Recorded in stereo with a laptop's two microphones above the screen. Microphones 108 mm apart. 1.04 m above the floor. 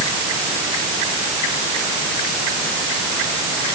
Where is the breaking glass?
I don't hear breaking glass.